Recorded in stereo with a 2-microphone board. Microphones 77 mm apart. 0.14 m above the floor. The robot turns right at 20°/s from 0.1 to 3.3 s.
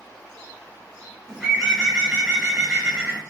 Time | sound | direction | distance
1.3 | a bird | 165° left | 1.8 m